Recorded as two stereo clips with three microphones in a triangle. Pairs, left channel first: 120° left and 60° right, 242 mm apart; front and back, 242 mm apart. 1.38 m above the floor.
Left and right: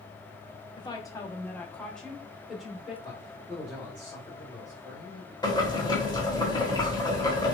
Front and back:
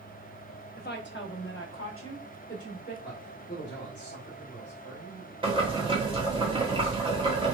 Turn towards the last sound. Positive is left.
turn(degrees=160)